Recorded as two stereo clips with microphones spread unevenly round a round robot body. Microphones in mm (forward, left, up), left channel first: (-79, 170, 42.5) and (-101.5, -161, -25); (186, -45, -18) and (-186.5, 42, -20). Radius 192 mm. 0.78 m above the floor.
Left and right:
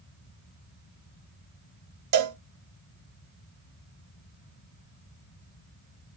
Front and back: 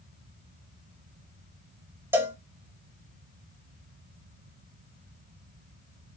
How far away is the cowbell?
About 0.6 m.